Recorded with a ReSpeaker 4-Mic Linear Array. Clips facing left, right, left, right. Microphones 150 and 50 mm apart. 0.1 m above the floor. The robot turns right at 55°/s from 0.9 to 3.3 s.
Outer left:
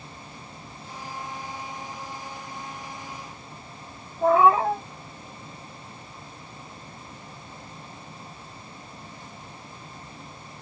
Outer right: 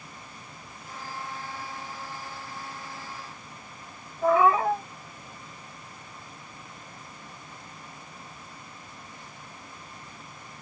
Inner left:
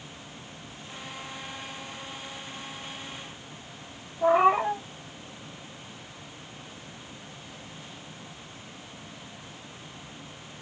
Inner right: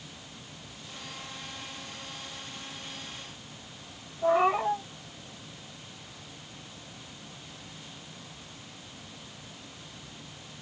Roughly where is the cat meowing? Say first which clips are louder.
Outer left 3 dB, inner left 3 dB; left.